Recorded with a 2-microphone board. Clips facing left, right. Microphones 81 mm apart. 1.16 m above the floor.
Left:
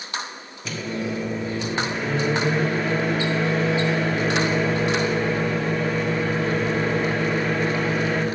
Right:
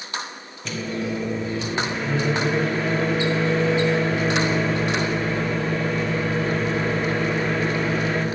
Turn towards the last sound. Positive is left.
turn(degrees=5)  # may be behind; listen again after turning